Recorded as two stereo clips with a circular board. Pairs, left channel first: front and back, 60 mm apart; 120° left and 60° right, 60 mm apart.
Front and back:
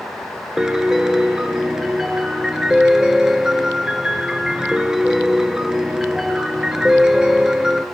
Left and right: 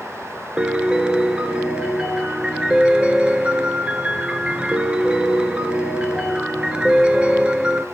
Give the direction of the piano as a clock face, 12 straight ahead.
4 o'clock.